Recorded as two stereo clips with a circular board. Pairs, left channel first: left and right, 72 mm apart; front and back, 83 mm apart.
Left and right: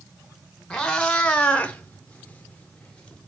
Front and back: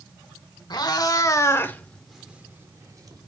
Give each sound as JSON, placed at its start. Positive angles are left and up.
{"t": 0.7, "sound": "a cat meowing", "azimuth_deg": 10, "distance_m": 0.9}